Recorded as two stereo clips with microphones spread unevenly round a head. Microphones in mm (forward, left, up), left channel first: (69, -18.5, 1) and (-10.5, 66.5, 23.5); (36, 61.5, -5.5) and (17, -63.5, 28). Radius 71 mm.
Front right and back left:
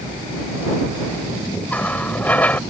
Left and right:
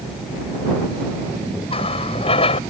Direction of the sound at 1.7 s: 35° left.